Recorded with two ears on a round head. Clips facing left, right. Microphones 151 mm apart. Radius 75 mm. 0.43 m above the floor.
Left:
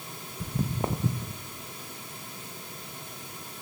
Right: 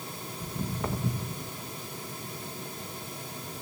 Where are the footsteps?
40° left (ahead or behind), 0.9 m; by 1.4 s 15° left (ahead or behind), 1.8 m.